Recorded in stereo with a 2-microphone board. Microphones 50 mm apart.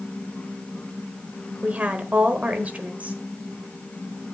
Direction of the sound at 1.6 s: 30° right (ahead or behind).